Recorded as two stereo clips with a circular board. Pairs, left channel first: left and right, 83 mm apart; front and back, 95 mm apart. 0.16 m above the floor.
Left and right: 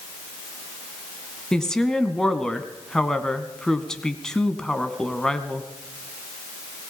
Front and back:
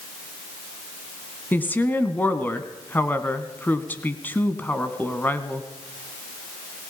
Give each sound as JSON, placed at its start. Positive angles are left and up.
{"t": 1.5, "sound": "a woman speaking", "azimuth_deg": 20, "distance_m": 1.6}